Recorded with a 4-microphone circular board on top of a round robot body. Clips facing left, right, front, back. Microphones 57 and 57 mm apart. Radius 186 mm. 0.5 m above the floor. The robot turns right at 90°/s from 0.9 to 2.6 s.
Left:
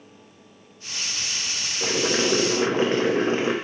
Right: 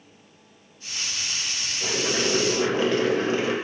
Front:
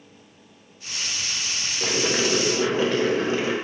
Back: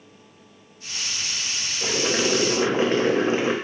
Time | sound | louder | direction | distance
1.8 | boiling | left 3 dB, even | 60° left | 1.0 m